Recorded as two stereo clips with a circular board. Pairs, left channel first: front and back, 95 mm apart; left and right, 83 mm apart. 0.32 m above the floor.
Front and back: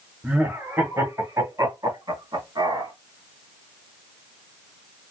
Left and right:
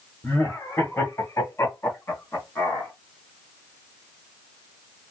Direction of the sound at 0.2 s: 120° left.